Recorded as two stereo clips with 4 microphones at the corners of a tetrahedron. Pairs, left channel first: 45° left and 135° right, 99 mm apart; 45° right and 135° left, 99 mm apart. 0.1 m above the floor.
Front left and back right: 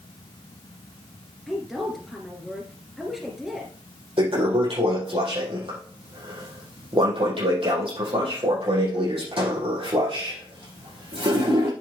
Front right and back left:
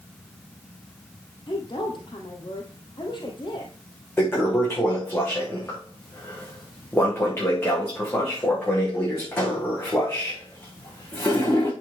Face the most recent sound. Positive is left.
turn(degrees=-110)